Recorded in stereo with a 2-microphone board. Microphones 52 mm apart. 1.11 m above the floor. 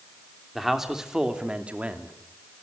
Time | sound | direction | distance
0.6 | a man speaking | 5° right (ahead or behind) | 3 m